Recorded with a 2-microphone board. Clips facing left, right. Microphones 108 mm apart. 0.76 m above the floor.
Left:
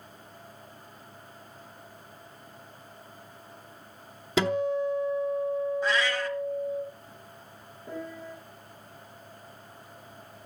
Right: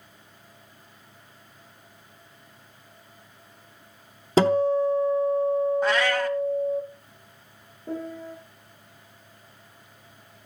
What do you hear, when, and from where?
4.4 s a guitar: 40° right (ahead or behind), 0.9 m
5.8 s a cat meowing: 60° right (ahead or behind), 1.2 m
7.9 s a piano: 35° right (ahead or behind), 7 m